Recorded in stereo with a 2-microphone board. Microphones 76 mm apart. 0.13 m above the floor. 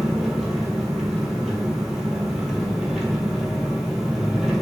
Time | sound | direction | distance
0.0 | an engine running | 5° right (ahead or behind) | 0.9 m